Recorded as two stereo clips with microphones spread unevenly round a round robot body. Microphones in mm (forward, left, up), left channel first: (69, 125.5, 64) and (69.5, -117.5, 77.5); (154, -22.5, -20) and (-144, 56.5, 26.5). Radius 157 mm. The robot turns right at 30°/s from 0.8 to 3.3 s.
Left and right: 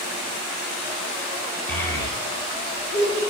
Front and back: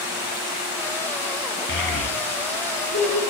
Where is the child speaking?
35° left, 1.3 m; by 3.2 s 80° left, 1.3 m.